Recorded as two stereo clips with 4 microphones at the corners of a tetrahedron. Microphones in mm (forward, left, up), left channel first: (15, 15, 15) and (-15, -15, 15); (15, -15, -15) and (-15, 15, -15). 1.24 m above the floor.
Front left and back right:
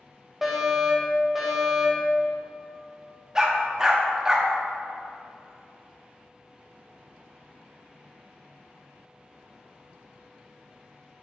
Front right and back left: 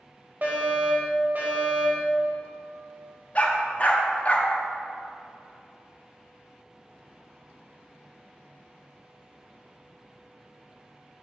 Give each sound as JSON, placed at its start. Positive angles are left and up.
{"t": 0.4, "sound": "a fire alarm", "azimuth_deg": 145, "distance_m": 1.8}
{"t": 3.4, "sound": "a dog barking", "azimuth_deg": -70, "distance_m": 0.8}